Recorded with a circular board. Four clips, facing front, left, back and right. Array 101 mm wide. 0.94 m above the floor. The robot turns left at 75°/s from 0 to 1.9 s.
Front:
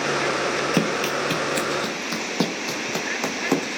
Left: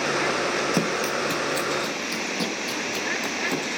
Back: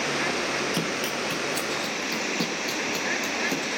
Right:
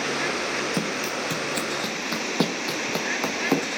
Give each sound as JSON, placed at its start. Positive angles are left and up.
{"t": 0.7, "sound": "running footsteps", "azimuth_deg": 20, "distance_m": 1.4}